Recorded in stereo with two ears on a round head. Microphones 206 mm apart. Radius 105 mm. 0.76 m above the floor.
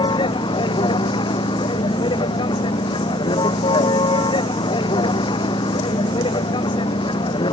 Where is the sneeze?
No sneeze in this recording.